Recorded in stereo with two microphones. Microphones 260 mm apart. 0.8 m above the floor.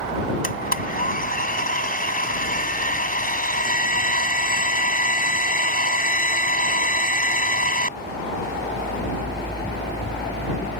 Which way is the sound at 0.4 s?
30° left (ahead or behind).